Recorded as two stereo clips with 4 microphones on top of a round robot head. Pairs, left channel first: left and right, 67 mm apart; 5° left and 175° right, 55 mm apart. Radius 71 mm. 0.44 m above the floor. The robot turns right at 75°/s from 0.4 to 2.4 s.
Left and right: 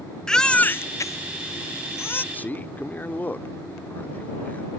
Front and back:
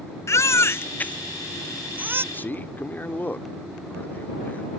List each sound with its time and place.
0.3 s a baby crying: 10° left; by 2.2 s 150° left
2.3 s a man speaking: 35° left; by 4.7 s 40° left